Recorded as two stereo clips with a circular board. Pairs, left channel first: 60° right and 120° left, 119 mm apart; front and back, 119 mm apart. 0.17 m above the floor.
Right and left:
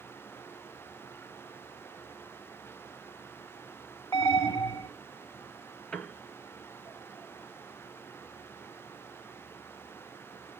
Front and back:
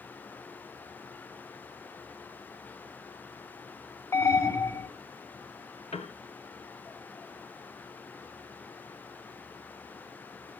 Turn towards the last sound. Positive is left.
turn(degrees=20)